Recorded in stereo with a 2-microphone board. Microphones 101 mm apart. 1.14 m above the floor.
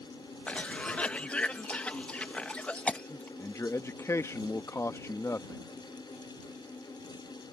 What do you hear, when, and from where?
0.5 s a cough: 15° left (ahead or behind)
3.4 s a man speaking: 25° left (ahead or behind)